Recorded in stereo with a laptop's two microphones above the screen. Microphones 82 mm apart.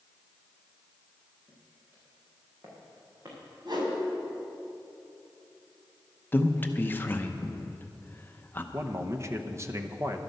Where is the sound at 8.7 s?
35° right (ahead or behind), 0.8 m.